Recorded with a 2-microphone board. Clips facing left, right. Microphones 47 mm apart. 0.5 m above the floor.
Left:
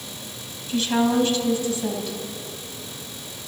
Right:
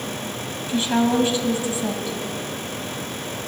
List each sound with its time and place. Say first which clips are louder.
0.7 s a woman speaking: right 1 dB; 20° right (ahead or behind), 3.5 m